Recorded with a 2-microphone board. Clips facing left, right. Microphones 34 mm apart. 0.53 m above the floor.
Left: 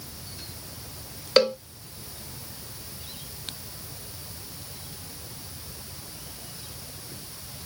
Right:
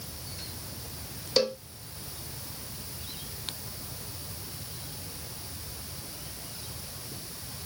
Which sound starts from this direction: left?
A cowbell, at 1.4 s.